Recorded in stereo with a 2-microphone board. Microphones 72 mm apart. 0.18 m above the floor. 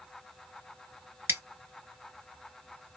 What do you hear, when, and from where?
1.3 s scissors: 35° right (ahead or behind), 0.7 m